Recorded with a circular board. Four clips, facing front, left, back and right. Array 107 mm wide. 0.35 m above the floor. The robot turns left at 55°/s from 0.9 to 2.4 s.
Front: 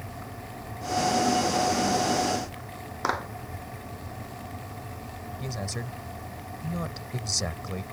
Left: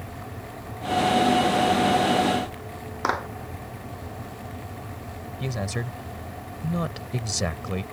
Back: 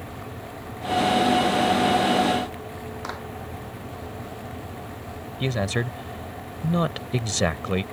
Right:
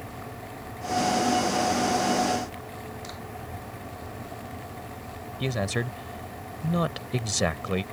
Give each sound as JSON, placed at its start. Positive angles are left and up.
{"t": 3.0, "sound": "a clap", "azimuth_deg": 65}
{"t": 5.4, "sound": "a man speaking", "azimuth_deg": -160}